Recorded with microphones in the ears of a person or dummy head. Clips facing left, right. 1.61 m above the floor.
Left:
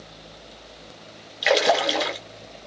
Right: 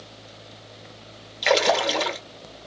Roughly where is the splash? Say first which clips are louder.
Left 1 dB; centre.